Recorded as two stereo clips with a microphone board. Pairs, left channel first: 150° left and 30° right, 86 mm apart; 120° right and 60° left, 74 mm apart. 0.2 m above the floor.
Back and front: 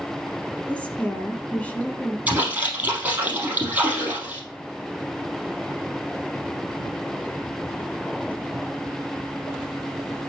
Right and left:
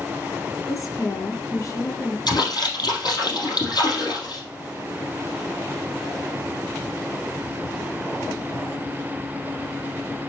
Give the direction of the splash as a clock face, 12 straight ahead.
3 o'clock.